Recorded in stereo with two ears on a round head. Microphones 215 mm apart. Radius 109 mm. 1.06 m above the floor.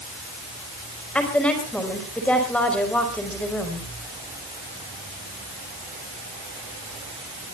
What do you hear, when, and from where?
1.1 s a woman speaking: 5° left (ahead or behind), 5 m